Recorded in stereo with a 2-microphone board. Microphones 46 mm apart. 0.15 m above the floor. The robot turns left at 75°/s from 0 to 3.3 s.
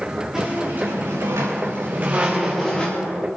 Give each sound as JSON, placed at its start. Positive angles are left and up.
{"t": 0.3, "sound": "a squeak", "azimuth_deg": -15, "distance_m": 4.5}